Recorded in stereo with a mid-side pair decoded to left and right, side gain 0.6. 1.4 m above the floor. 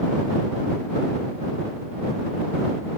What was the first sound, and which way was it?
Only background noise.